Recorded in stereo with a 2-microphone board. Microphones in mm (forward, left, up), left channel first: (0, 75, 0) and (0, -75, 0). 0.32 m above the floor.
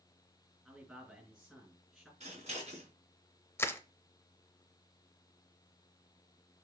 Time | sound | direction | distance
0.7 | a man speaking | 5° right (ahead or behind) | 4 m
2.2 | scissors | 45° right (ahead or behind) | 3.5 m
3.6 | crushing | 15° left (ahead or behind) | 0.6 m